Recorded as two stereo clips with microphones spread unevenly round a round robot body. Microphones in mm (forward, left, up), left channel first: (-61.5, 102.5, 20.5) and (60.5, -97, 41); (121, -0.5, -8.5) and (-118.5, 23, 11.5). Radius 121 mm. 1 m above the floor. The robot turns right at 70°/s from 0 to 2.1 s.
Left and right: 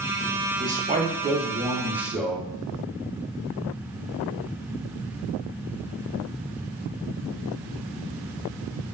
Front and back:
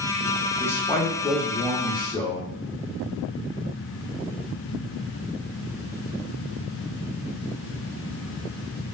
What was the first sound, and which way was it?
A man speaking, 70° right.